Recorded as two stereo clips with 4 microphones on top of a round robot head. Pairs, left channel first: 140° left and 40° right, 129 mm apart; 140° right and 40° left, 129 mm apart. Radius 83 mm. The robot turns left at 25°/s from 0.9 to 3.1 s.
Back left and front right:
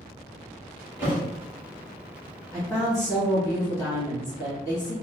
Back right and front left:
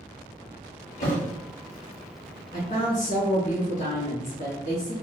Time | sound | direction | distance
1.0 | a thud | 115° right | 1.3 m
2.5 | a woman speaking | 140° right | 1.7 m